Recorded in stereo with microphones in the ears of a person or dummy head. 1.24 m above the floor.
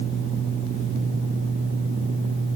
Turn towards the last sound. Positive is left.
No sound to turn to.